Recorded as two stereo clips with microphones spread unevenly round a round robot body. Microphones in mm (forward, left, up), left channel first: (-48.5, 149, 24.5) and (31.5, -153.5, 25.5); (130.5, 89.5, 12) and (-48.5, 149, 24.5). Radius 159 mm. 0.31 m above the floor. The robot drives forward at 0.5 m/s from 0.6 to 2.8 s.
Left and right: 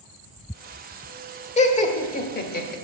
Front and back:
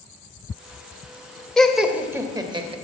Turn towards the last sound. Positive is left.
turn(degrees=125)